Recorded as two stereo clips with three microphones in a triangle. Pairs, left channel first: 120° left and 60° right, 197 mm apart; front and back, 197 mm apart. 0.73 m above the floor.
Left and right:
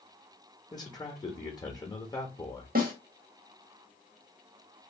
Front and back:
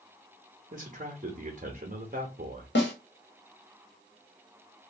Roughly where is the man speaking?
Behind.